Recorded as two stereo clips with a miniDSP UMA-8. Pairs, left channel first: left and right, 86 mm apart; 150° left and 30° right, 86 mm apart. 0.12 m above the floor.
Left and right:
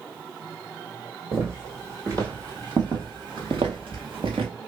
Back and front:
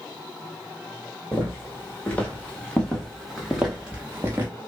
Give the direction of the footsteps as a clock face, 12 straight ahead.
5 o'clock.